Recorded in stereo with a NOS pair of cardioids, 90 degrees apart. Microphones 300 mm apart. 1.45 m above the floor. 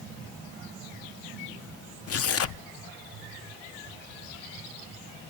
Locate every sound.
2.1 s tearing paper: 55° left, 0.7 m